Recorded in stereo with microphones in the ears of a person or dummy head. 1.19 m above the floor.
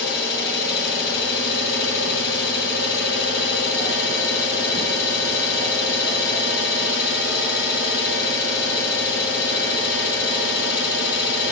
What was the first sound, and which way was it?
An engine running, 75° left (ahead or behind).